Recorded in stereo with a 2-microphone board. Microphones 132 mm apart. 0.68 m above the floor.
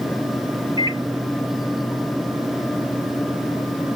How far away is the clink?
No clink in this recording.